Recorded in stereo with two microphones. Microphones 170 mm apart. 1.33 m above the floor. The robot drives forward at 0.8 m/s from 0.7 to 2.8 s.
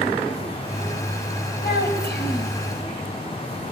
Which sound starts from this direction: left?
A child speaking, at 1.6 s.